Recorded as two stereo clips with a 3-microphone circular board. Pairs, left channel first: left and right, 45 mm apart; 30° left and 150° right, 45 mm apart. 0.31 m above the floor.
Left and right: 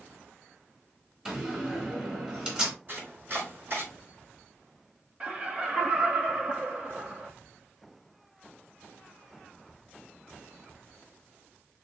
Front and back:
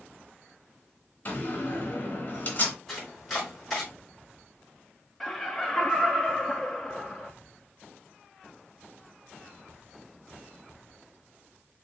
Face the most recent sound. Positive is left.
turn(degrees=-55)